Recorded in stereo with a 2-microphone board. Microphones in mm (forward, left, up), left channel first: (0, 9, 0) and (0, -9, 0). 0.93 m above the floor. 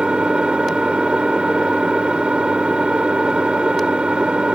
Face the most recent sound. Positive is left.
turn(degrees=-70)  # may be behind; listen again after turning